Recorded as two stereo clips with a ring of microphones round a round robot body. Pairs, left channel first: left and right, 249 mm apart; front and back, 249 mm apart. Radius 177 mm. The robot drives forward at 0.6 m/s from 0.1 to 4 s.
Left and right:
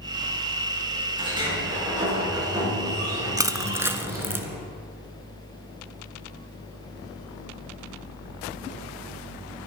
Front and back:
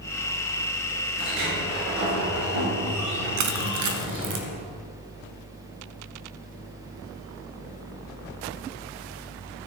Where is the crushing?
165° right, 0.7 m; by 4.5 s 170° right, 1.1 m.